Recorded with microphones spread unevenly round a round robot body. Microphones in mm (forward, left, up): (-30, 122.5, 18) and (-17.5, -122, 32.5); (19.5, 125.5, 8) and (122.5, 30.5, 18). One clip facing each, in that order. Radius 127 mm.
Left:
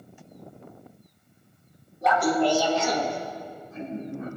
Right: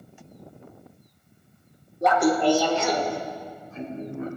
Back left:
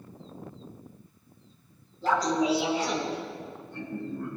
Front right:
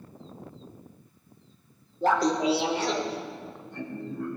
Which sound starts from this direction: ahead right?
Laughter, at 2.0 s.